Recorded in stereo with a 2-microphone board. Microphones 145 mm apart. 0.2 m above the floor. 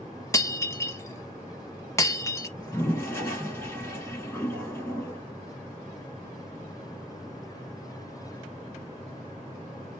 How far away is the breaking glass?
About 0.7 m.